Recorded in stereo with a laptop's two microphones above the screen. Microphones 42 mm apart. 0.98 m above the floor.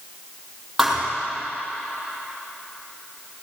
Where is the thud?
5° right (ahead or behind), 3 m.